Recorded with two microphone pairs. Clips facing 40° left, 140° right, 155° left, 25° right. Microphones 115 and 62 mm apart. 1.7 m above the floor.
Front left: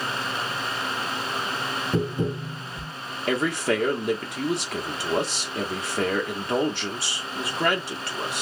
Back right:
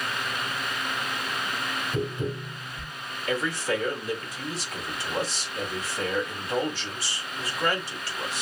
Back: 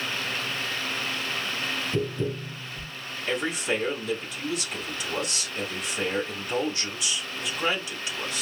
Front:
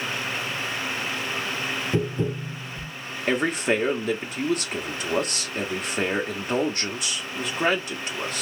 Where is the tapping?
15° left, 1.9 m.